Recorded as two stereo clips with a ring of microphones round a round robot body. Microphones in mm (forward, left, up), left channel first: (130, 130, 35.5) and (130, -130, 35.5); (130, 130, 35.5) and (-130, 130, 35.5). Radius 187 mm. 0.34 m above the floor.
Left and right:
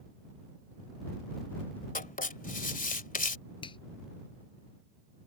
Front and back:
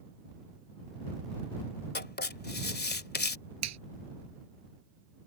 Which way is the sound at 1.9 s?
40° left.